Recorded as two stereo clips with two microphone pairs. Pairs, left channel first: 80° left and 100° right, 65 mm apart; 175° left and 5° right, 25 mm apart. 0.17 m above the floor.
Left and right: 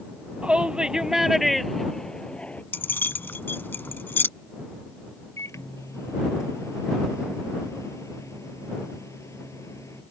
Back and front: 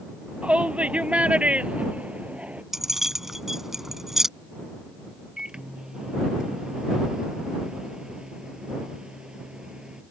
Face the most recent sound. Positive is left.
turn(degrees=50)